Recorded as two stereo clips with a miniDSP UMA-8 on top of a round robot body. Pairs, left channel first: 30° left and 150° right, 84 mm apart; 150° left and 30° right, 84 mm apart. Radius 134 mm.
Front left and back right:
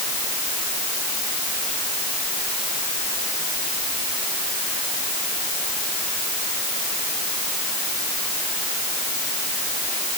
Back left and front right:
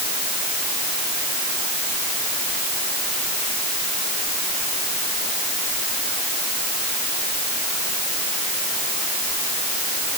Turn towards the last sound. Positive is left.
No sound to turn to.